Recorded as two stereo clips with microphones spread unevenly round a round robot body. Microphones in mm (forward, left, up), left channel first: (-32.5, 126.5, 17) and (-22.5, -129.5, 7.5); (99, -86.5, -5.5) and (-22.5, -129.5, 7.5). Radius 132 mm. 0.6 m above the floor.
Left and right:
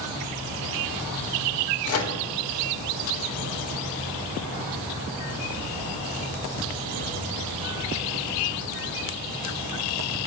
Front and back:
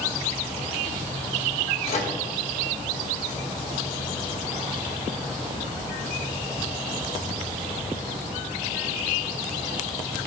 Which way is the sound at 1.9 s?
60° left.